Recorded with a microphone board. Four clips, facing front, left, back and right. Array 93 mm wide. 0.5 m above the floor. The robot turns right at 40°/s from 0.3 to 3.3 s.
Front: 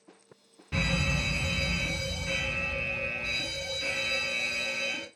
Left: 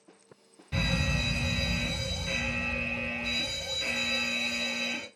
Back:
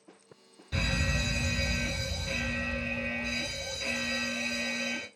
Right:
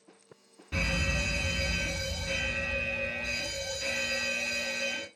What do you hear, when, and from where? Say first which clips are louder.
0.7 s a fire alarm: left 1 dB, front 2 dB; 15° right, 1.9 m; by 5.1 s 90° left, 1.9 m